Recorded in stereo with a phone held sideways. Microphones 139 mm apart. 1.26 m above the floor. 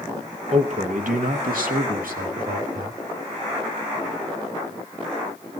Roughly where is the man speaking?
Right.